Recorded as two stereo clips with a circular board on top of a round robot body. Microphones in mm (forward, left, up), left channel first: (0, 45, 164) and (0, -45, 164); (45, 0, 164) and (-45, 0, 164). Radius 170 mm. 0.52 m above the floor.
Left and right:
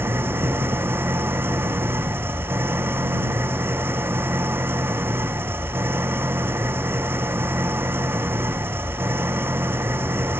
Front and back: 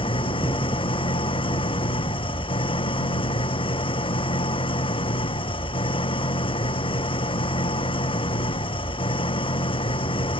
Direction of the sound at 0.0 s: 25° right.